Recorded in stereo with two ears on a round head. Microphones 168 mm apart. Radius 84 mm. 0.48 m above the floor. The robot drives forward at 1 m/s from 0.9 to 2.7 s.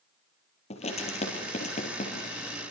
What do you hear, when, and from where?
0.7 s writing: 35° left (ahead or behind), 6.5 m; by 2.7 s 45° left (ahead or behind), 5 m